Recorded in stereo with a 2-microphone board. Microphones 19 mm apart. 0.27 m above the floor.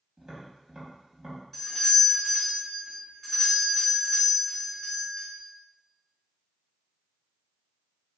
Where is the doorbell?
5° left (ahead or behind), 1.6 m.